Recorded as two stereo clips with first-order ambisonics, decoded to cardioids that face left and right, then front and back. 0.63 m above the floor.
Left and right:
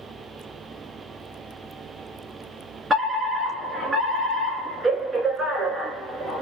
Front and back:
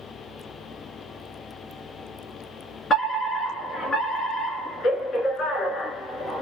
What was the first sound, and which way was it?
A fire alarm, 25° right.